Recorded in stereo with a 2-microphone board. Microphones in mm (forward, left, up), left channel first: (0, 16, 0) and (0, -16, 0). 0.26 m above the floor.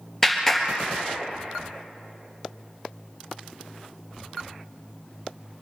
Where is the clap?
5° left (ahead or behind), 3.5 m.